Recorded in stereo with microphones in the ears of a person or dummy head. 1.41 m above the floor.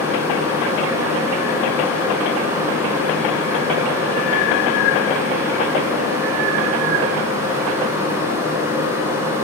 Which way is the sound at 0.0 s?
15° right (ahead or behind).